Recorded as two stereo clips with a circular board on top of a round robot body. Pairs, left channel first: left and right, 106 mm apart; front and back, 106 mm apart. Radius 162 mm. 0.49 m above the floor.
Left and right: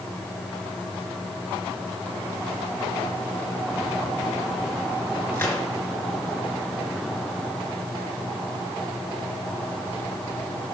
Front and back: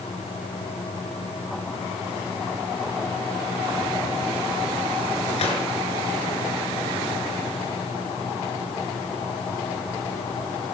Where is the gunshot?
15° left, 3.5 m.